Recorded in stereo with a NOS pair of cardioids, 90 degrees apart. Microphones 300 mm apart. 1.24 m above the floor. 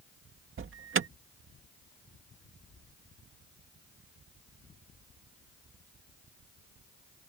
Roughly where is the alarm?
Ahead right.